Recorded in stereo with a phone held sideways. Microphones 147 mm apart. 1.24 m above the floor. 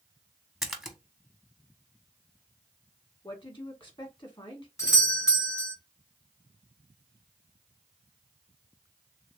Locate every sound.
0.6 s a splash: centre (ahead or behind), 0.9 m
3.2 s a woman speaking: 35° left (ahead or behind), 1.7 m
4.8 s a doorbell: 20° left (ahead or behind), 1.2 m